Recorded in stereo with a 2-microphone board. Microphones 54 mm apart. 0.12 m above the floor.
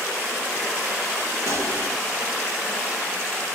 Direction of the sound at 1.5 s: 55° right (ahead or behind).